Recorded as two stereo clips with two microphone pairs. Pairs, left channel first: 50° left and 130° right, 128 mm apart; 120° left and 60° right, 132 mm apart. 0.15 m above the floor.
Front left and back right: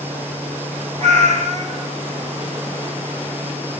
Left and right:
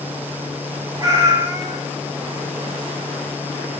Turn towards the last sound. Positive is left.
turn(degrees=-120)